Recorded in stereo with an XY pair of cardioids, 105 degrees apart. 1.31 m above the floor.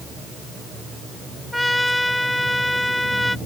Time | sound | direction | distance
1.5 | a trumpet | 5° left | ?